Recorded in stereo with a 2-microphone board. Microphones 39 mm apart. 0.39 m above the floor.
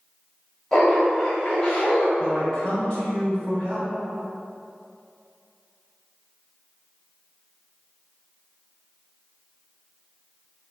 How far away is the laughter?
About 1.4 m.